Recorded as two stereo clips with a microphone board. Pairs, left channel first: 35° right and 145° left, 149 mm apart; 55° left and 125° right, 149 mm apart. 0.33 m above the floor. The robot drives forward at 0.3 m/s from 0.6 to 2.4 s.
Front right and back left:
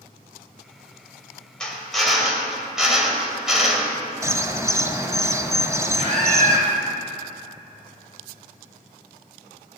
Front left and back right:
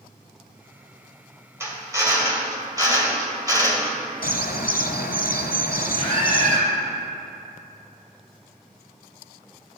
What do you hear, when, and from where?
1.6 s a drill: 110° right, 1.2 m; by 4.0 s 135° right, 1.3 m
4.2 s a bird: 75° left, 0.6 m
6.0 s a scream: 90° left, 1.4 m